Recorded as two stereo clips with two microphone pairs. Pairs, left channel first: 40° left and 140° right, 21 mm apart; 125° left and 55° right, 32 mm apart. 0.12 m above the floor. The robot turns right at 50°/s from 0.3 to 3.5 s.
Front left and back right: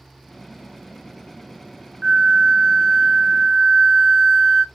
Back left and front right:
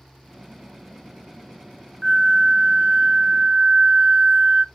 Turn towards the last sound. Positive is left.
turn(degrees=-60)